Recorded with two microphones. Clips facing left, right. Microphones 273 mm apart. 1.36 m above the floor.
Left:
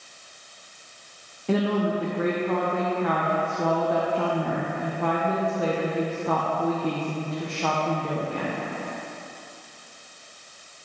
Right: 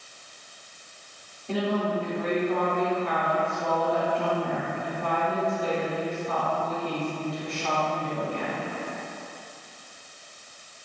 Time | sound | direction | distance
1.5 | a woman speaking | 70° left (ahead or behind) | 0.9 m